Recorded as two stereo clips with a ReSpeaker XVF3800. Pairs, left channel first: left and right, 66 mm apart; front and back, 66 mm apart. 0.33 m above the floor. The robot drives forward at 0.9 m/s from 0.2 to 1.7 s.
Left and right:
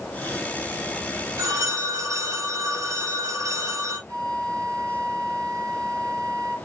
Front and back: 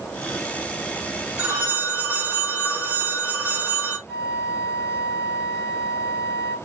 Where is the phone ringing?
110° right, 3.5 m; by 4.0 s 115° right, 3.5 m.